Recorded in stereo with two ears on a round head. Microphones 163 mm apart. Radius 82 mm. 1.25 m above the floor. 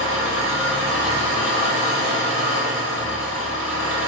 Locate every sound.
0.0 s an engine running: 70° left (ahead or behind), 2 m